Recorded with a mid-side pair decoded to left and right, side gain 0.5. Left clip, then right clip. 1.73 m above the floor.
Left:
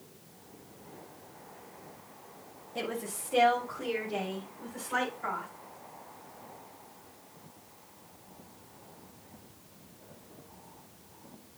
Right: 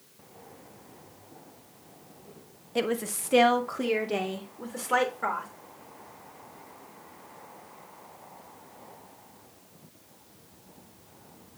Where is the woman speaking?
50° right, 1.4 m; by 5.5 s 75° right, 4 m.